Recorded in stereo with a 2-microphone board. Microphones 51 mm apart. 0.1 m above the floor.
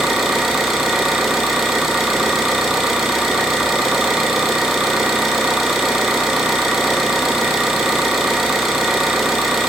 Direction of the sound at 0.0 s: 5° right (ahead or behind).